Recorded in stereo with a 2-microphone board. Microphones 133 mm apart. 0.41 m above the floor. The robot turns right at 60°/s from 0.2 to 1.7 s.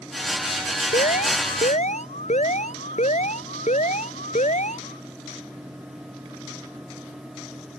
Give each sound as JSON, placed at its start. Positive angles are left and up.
{"t": 0.9, "sound": "an alarm", "azimuth_deg": 70}